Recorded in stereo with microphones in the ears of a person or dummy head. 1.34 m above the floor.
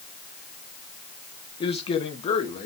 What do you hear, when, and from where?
1.6 s a man speaking: 25° left (ahead or behind), 1.0 m; by 2.7 s 35° left (ahead or behind), 1.9 m